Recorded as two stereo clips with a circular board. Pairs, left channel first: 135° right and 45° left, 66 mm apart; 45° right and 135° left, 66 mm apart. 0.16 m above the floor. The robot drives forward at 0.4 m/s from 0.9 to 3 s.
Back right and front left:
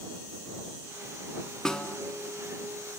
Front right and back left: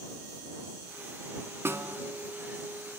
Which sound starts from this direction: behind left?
A snare drum, at 1.6 s.